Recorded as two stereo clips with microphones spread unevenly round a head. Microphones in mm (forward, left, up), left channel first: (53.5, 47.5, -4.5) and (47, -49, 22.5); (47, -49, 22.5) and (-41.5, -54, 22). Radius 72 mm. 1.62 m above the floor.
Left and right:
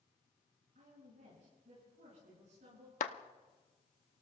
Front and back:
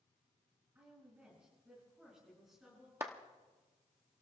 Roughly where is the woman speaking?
Right.